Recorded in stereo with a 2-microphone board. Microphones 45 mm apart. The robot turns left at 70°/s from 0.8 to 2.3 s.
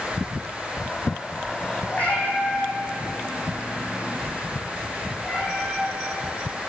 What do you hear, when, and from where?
1.9 s a cat meowing: 45° left (ahead or behind), 1.8 m; by 6.0 s 20° left (ahead or behind), 1.8 m